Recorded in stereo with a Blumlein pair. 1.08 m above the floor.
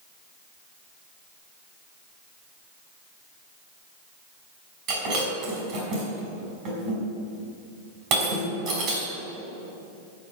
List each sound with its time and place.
4.9 s breaking glass: 35° right, 5 m